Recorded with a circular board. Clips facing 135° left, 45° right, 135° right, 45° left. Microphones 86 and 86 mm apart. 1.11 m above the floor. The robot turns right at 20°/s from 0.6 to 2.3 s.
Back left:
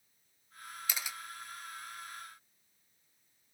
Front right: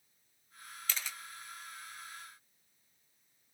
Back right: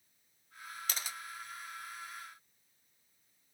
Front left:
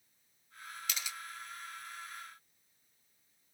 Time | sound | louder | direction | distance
0.9 | a camera shutter | even, even | 155° right | 0.7 m